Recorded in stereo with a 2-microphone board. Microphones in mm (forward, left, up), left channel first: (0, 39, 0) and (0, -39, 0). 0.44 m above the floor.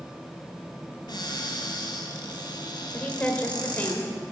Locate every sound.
1.1 s a cupboard door: 70° left (ahead or behind), 1.7 m
2.9 s a woman speaking: 20° left (ahead or behind), 1.3 m